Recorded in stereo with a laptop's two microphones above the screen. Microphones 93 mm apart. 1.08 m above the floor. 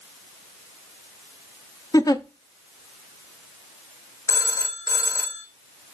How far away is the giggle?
About 0.6 m.